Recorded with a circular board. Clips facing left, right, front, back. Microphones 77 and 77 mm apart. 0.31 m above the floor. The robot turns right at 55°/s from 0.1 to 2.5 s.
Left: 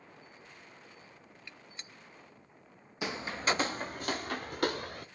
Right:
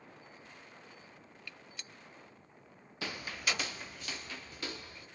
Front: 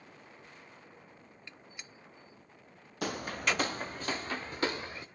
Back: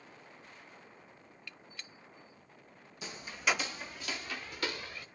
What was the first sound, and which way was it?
A gunshot, 45° left.